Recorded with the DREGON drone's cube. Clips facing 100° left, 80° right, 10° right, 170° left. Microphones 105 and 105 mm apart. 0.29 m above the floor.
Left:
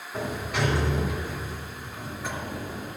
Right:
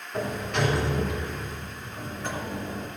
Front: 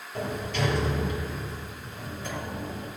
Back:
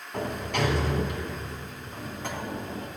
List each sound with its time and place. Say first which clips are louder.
0.1 s a sliding door: right 1 dB, back 1 dB; 175° right, 2 m